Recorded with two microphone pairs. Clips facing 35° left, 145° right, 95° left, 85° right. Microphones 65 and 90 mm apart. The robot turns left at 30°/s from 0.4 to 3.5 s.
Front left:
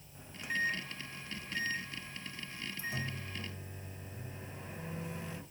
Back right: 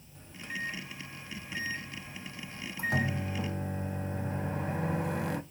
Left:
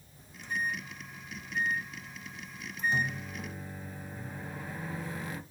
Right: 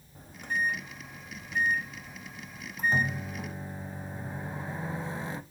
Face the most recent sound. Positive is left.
turn(degrees=-140)